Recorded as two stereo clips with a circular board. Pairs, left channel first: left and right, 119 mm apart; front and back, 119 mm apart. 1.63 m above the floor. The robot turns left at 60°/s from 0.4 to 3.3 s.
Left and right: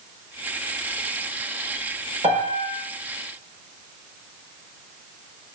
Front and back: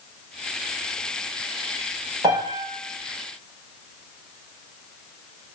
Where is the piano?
120° right, 4.5 m; by 2.7 s 145° right, 4.5 m.